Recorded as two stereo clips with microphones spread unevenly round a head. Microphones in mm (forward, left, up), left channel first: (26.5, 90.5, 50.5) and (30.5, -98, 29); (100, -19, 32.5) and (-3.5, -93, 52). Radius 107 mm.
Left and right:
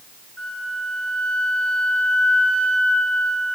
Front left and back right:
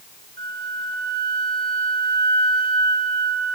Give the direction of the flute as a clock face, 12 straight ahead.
6 o'clock.